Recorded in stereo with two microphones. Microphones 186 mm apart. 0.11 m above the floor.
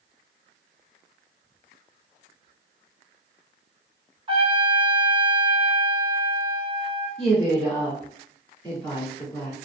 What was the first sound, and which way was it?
A trumpet, 30° right (ahead or behind).